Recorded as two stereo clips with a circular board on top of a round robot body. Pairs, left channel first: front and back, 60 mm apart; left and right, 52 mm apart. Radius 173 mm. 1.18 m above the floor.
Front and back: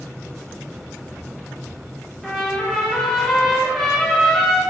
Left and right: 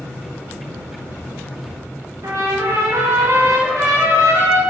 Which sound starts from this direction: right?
A trumpet, at 2.2 s.